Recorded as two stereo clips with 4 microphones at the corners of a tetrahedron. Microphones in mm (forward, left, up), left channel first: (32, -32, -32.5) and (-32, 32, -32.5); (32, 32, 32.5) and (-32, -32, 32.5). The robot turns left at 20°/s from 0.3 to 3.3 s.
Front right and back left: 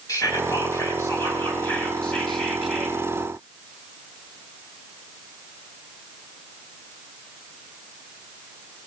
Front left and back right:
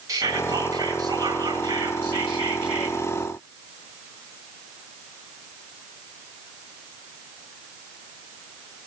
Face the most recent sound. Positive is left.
turn(degrees=-150)